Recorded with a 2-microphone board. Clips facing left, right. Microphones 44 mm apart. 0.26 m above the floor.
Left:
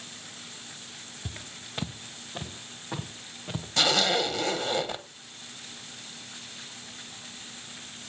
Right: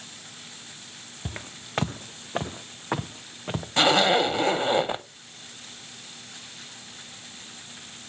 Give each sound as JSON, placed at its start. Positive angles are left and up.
{"t": 1.2, "sound": "footsteps", "side_deg": -35, "distance_m": 1.0}
{"t": 3.8, "sound": "a zipper", "side_deg": -25, "distance_m": 0.7}